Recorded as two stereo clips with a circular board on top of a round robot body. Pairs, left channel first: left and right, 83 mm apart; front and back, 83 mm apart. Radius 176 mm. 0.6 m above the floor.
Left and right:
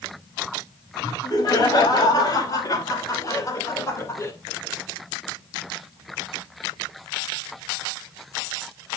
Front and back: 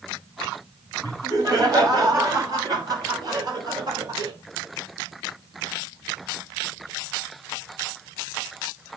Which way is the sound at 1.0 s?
135° left.